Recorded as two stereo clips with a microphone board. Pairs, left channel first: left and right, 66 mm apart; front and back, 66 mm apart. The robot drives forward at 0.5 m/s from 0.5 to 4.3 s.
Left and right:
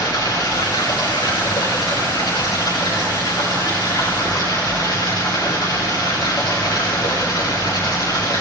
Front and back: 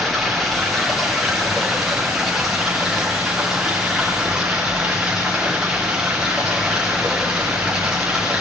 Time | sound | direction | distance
0.0 | running water | 90° left | 8.5 m